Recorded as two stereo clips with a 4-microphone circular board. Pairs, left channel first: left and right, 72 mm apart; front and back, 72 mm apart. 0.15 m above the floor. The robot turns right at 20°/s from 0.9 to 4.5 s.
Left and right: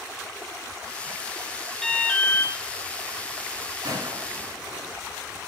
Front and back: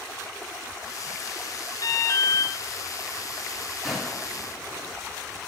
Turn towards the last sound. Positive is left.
turn(degrees=-80)